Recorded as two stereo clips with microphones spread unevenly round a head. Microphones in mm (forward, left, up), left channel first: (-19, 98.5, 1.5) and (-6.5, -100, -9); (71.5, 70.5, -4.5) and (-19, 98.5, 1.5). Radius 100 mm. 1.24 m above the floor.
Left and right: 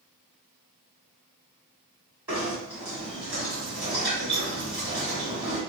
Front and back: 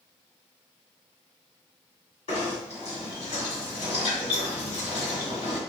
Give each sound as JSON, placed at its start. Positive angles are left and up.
{"t": 2.3, "sound": "knocking", "azimuth_deg": -5, "distance_m": 1.5}